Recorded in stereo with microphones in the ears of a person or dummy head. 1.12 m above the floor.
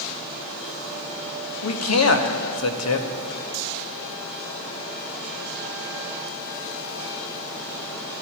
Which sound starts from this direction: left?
A man speaking, at 1.6 s.